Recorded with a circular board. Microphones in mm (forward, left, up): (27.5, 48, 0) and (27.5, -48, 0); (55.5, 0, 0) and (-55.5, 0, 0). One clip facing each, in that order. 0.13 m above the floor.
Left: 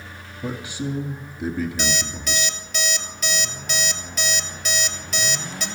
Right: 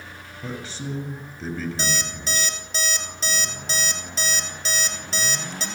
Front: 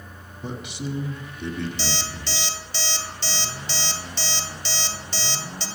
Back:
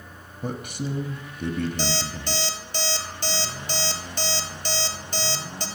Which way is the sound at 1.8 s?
145° right.